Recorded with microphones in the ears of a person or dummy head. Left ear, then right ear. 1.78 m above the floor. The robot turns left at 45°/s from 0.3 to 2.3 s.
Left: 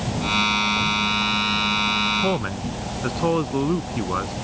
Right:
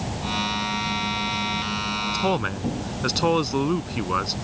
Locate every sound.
2.1 s a man speaking: 80° right; by 4.3 s 90° right